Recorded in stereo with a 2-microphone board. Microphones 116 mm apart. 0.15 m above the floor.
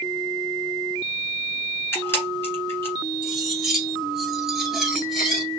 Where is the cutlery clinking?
5° right (ahead or behind), 1.7 m.